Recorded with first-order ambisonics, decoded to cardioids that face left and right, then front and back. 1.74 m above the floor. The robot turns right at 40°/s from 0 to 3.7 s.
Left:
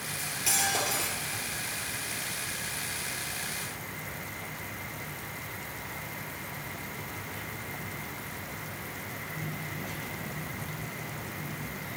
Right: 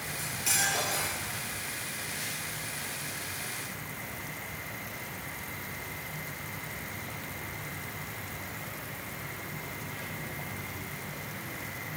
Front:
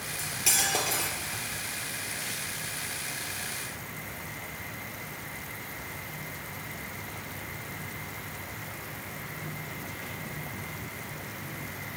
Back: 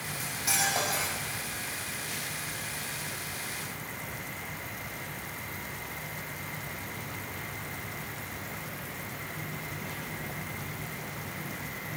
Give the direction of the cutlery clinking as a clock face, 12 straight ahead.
12 o'clock.